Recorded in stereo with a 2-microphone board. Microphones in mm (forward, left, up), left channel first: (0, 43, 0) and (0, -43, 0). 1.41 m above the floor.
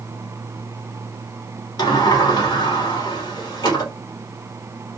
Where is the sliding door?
50° left (ahead or behind), 1.1 m.